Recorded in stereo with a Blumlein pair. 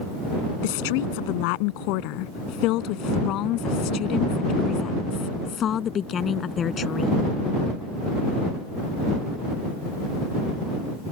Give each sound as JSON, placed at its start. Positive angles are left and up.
{"t": 0.6, "sound": "a woman speaking", "azimuth_deg": 50}